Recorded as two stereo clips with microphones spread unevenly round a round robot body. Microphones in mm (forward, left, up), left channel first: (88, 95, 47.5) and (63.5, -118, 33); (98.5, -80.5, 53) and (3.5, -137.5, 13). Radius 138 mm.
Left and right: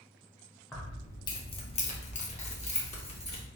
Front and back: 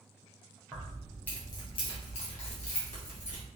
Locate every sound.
0.7 s keys jangling: 170° left, 0.6 m; by 3.4 s 20° left, 1.2 m